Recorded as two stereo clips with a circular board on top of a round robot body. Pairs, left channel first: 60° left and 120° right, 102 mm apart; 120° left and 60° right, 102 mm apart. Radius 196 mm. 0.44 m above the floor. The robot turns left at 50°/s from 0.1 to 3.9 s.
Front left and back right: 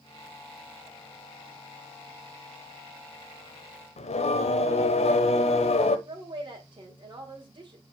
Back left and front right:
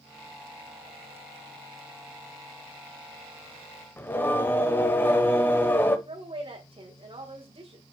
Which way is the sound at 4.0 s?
50° left.